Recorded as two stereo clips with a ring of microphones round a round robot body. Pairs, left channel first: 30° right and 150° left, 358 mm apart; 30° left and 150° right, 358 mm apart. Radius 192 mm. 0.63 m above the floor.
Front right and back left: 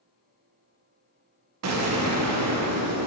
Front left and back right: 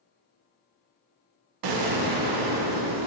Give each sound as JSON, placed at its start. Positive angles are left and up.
{"t": 1.6, "sound": "an explosion", "azimuth_deg": -165, "distance_m": 0.8}